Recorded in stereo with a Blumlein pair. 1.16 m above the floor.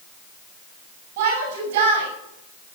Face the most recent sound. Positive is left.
turn(degrees=-55)